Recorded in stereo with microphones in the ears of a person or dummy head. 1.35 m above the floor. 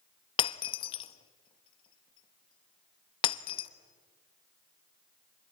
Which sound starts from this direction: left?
Breaking glass, at 0.4 s.